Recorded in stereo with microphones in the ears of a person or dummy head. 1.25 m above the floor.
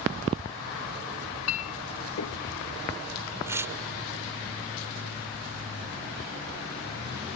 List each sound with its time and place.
1.5 s a clink: 80° left
3.5 s tearing paper: 15° right (ahead or behind)